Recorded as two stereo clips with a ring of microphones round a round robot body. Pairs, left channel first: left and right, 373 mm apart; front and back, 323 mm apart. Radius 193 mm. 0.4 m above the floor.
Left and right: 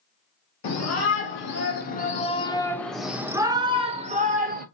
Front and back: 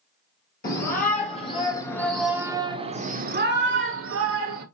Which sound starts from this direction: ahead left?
A shout, at 0.6 s.